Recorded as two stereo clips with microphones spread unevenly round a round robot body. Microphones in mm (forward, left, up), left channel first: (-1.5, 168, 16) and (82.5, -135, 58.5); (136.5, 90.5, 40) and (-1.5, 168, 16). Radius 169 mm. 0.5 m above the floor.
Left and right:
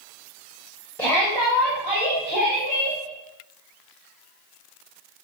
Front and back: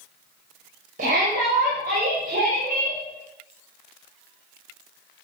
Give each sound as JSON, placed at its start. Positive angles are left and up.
{"t": 1.0, "sound": "a shout", "azimuth_deg": -175, "distance_m": 2.5}